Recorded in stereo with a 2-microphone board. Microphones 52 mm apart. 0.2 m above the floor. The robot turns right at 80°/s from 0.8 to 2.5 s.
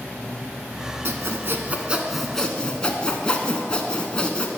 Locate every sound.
1.1 s sawing: 95° right, 0.8 m; by 4.5 s 20° left, 0.8 m